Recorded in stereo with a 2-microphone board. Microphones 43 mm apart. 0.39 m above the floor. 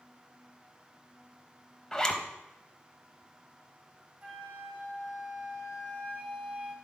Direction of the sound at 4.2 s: 35° right (ahead or behind).